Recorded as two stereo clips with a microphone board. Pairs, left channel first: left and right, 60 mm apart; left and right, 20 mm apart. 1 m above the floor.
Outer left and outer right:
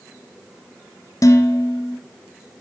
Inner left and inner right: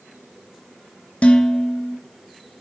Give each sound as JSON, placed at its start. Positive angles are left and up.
{"t": 1.2, "sound": "dishes clattering", "side_deg": 65, "distance_m": 0.6}